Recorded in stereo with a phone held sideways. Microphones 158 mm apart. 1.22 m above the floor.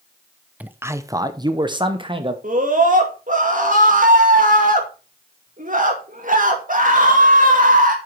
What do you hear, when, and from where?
0.6 s a man speaking: 10° right (ahead or behind), 0.6 m; by 2.3 s 35° right (ahead or behind), 1.3 m
2.4 s a scream: 55° right (ahead or behind), 2.5 m